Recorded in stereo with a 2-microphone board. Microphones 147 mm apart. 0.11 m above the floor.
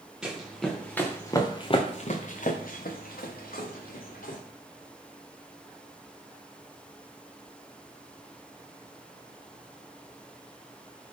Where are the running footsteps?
5° right (ahead or behind), 1.2 m; by 4.4 s 75° left (ahead or behind), 1.6 m.